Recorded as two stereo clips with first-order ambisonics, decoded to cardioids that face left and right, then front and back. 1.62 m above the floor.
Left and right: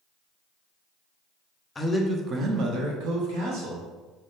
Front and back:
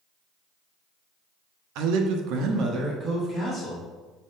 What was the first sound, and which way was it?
A man speaking, 165° left.